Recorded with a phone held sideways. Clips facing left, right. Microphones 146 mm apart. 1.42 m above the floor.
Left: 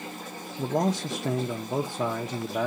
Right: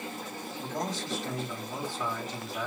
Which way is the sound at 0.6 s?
60° left (ahead or behind).